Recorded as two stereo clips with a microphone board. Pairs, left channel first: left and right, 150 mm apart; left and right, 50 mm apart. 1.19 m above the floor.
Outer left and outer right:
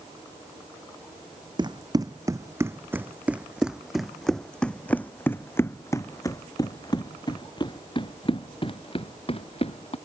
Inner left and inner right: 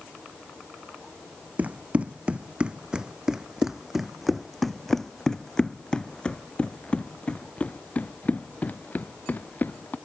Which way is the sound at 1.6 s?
30° right (ahead or behind).